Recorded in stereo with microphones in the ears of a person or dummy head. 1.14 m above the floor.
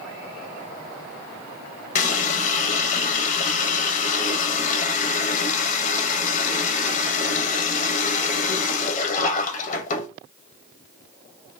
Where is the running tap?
50° left (ahead or behind), 0.6 m.